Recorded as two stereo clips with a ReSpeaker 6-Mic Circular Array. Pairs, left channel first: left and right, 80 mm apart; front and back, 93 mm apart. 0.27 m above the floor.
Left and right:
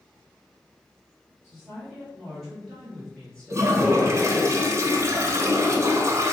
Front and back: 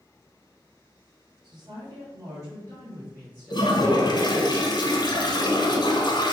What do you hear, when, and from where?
1.4 s a woman speaking: 170° right, 2 m; by 4.5 s 85° left, 1.6 m
3.5 s a toilet flushing: 35° right, 0.9 m